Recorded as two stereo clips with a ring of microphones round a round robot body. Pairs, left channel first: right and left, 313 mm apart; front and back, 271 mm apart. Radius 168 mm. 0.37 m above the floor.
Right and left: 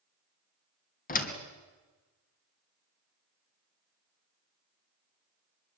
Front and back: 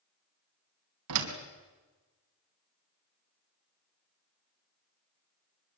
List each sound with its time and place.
1.1 s a door slam: 150° right, 3 m